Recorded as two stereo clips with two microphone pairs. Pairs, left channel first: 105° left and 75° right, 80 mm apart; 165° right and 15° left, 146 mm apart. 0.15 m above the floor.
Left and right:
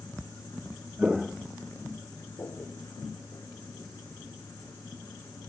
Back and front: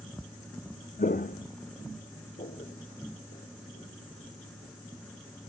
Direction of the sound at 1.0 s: 150° right.